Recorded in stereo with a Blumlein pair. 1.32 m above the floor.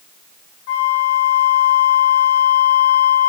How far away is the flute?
About 0.8 m.